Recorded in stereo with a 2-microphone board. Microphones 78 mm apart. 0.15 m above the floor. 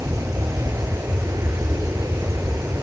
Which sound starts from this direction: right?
An aircraft, at 0.0 s.